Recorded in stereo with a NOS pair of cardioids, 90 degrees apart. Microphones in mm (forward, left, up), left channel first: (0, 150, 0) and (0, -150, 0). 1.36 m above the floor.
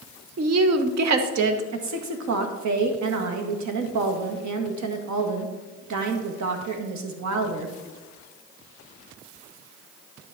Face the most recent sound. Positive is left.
turn(degrees=-65)